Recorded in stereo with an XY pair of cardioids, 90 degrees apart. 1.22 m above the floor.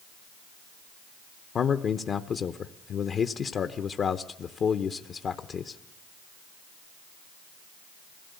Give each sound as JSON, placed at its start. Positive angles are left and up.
{"t": 1.6, "sound": "a man speaking", "azimuth_deg": 60, "distance_m": 0.9}